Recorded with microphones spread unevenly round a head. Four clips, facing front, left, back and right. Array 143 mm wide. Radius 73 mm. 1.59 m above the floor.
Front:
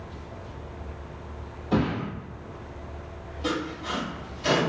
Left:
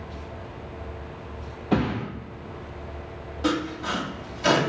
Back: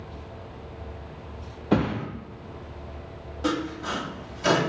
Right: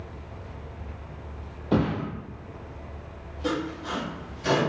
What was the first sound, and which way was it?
A thud, 170° right.